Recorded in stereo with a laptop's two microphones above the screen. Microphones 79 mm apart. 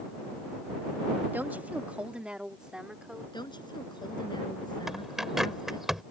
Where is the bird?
5° right (ahead or behind).